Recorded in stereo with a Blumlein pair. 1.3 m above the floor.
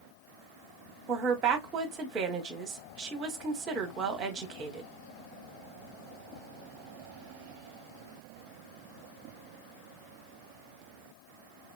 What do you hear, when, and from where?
1.1 s a woman speaking: 30° right, 1.3 m